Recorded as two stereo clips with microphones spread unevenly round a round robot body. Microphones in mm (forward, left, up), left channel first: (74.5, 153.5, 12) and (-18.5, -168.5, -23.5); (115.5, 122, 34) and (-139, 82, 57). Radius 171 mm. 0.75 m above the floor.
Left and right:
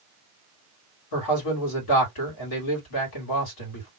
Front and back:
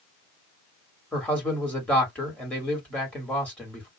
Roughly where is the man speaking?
Left.